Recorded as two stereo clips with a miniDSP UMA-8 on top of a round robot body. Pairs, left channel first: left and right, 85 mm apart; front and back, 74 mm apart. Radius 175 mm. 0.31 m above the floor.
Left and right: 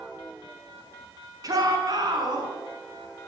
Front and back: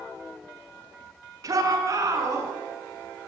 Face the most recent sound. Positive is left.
turn(degrees=-130)